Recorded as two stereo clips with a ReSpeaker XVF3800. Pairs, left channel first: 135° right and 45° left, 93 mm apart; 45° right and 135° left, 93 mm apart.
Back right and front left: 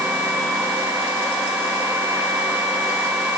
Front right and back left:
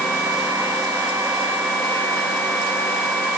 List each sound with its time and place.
Only background noise.